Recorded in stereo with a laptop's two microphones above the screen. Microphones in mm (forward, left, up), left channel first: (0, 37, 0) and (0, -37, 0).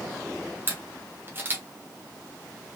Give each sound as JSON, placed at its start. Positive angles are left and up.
{"t": 0.7, "sound": "a camera shutter", "side_deg": -30, "distance_m": 0.9}